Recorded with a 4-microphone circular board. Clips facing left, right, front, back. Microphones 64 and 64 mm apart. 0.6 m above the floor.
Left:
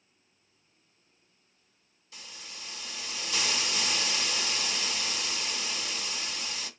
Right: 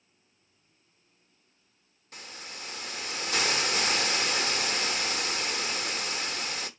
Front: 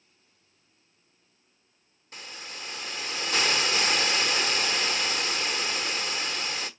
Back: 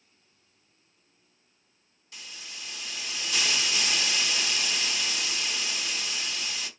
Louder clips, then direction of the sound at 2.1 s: Right 4 dB, front 4 dB; 50° right.